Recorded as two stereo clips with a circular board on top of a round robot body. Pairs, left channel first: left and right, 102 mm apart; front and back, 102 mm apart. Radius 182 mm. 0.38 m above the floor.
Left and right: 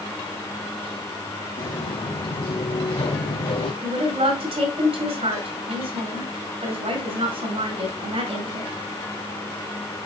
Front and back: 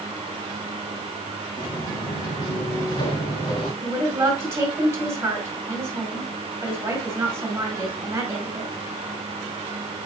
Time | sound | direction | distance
1.6 | footsteps | 45° left | 3.5 m
3.8 | a woman speaking | 110° right | 5 m